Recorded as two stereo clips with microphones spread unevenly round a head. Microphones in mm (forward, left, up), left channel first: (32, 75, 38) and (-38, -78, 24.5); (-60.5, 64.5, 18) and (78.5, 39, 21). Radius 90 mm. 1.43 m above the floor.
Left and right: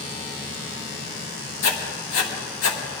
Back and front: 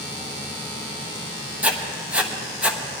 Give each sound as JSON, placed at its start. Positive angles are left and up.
{"t": 1.6, "sound": "writing", "azimuth_deg": 70, "distance_m": 1.5}